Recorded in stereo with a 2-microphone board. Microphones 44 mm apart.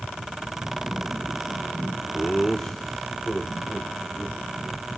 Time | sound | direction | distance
2.1 | laughter | 20° left (ahead or behind) | 0.9 m